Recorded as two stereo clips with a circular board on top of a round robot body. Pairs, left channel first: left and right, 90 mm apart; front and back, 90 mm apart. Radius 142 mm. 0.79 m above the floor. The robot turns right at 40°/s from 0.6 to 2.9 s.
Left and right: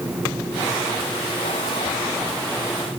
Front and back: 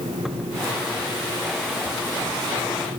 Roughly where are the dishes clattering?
No dishes clattering in this recording.